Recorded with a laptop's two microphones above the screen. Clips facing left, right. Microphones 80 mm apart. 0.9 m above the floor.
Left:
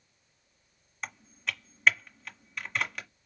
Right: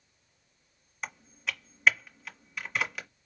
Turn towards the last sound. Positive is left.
turn(degrees=-5)  # may be behind; listen again after turning